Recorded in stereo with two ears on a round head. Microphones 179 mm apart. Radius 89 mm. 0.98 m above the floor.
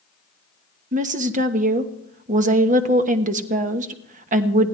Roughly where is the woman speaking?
Right.